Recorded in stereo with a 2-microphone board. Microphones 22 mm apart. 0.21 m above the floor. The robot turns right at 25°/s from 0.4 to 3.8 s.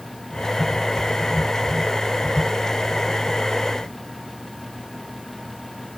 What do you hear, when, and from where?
Only background noise.